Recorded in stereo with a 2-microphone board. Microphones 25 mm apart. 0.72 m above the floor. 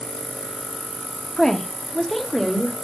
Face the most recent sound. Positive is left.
turn(degrees=5)  # may be behind; listen again after turning